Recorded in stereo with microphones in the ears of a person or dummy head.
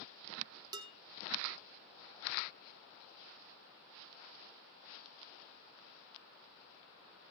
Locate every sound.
0.7 s dishes clattering: 20° right (ahead or behind), 1.4 m